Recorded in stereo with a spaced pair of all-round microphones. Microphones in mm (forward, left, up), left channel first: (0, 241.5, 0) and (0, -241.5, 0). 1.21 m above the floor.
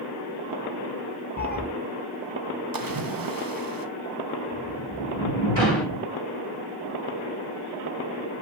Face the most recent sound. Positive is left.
turn(degrees=65)  # may be behind; listen again after turning